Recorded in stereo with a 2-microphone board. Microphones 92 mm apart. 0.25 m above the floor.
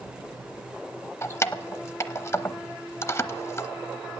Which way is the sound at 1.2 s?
30° left (ahead or behind).